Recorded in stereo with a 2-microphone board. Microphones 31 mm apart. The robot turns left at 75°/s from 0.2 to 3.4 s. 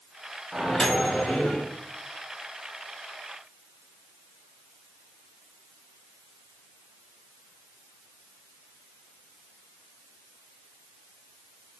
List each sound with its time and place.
0.5 s a microwave: 175° right, 1.1 m; by 1.6 s 105° left, 1.1 m